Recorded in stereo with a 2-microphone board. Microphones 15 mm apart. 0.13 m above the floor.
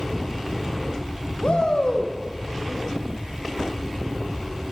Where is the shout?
75° left (ahead or behind), 6.5 m.